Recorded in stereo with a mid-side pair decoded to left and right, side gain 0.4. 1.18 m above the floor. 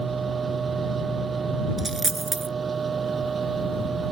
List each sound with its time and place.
0.0 s a machine running: 45° right
1.8 s a dropped coin: 25° right